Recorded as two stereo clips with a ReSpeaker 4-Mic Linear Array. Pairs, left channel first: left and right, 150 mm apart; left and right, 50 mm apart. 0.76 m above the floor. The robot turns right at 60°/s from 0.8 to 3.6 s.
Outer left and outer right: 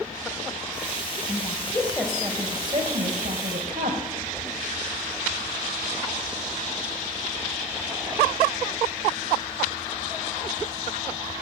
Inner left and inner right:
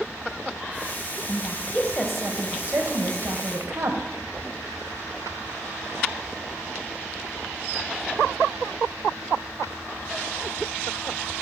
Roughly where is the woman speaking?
Behind left.